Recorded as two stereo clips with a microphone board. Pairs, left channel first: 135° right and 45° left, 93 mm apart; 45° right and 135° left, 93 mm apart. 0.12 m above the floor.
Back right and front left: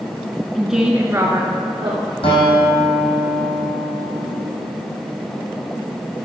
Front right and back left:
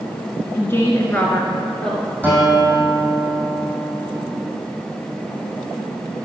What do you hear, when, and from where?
0.6 s a woman speaking: 55° right, 1.1 m; by 2.1 s 35° left, 2.0 m
2.2 s a guitar: 120° right, 4 m